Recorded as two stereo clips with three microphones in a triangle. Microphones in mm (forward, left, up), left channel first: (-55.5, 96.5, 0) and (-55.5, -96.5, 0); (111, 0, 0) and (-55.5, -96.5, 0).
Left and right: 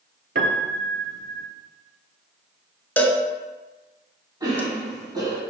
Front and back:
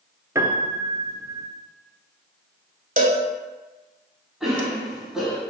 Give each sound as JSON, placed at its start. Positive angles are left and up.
{"t": 0.3, "sound": "a piano", "azimuth_deg": -75, "distance_m": 0.5}
{"t": 3.0, "sound": "a cowbell", "azimuth_deg": 170, "distance_m": 0.7}
{"t": 4.4, "sound": "a cough", "azimuth_deg": -65, "distance_m": 1.2}